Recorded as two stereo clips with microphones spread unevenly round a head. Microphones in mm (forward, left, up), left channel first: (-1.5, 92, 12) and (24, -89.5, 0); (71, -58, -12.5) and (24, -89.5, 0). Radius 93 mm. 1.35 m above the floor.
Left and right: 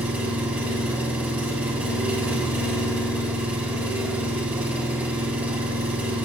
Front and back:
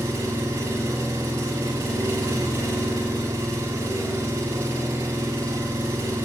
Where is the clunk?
No clunk in this recording.